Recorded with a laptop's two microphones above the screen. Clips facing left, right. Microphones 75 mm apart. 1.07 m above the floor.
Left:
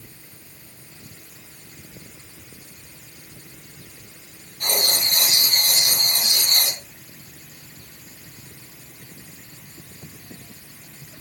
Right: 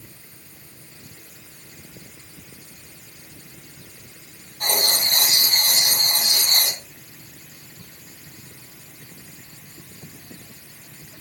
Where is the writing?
65° right (ahead or behind), 9 m.